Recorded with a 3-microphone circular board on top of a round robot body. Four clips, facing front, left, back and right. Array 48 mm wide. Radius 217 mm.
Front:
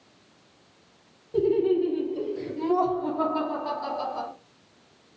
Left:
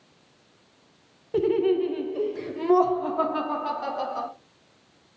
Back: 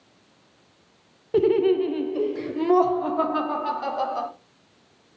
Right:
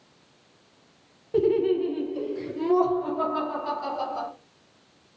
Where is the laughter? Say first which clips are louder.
Even, back 3 dB; 170° left, 0.6 m; by 4.3 s 150° left, 2 m.